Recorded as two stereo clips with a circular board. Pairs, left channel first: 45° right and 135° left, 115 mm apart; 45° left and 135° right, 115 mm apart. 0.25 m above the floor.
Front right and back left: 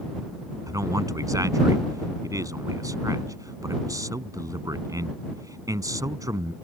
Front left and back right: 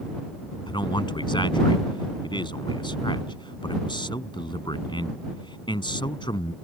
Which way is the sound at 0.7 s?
80° left.